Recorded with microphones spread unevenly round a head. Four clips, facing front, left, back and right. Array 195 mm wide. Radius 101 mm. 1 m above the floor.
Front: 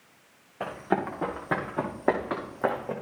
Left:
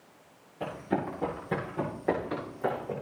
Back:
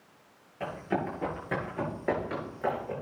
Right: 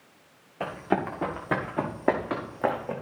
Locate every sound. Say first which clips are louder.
0.6 s running footsteps: right 4 dB, front 3 dB; 60° right, 7.5 m; by 2.9 s 55° right, 5.5 m